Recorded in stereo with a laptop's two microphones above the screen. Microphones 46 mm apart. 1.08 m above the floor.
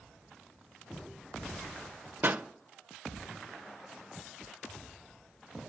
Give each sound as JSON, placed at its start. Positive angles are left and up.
{"t": 2.2, "sound": "a pop", "side_deg": -45, "distance_m": 0.5}